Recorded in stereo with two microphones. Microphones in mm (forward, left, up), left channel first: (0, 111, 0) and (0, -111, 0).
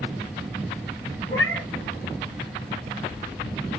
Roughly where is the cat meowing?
Left.